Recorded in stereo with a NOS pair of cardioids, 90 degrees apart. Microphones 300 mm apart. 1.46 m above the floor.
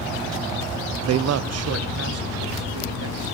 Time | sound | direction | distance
1.0 | a man speaking | 60° right | 0.7 m